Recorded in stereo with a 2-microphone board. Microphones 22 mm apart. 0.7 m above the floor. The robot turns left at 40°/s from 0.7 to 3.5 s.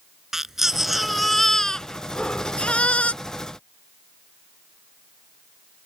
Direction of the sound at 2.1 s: 45° left (ahead or behind).